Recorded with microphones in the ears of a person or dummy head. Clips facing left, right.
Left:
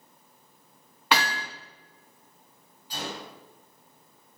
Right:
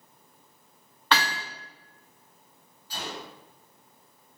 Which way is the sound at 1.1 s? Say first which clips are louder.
Left 1 dB; 10° left (ahead or behind).